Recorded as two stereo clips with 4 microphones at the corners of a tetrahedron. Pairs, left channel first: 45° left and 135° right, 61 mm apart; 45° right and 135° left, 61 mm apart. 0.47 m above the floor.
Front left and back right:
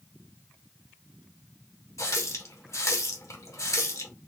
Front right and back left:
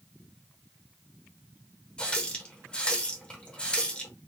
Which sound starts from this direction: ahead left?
A running tap, at 2.0 s.